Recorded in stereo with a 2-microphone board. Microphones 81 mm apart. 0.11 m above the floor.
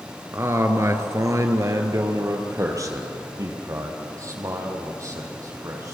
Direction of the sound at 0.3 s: 35° right (ahead or behind).